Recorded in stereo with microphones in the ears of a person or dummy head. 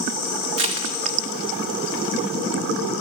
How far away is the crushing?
About 0.8 m.